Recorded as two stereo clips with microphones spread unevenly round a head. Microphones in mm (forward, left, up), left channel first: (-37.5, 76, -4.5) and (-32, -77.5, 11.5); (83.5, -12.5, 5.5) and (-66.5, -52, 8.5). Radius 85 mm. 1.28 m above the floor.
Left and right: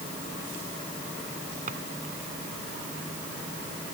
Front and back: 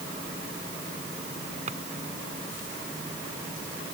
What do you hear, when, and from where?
1.7 s a drawer: 125° right